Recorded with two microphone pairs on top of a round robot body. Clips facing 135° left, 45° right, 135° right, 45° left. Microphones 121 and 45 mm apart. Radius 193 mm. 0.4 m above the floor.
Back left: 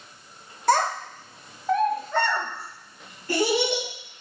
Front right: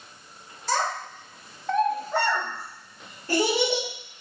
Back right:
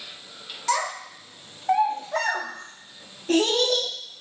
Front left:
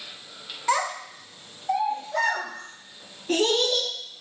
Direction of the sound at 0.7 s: 120° left.